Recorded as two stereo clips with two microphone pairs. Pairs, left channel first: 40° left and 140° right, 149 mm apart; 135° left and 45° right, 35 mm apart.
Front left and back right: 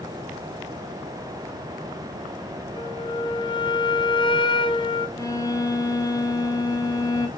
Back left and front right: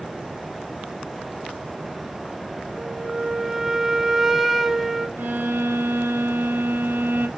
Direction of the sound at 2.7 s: 35° left.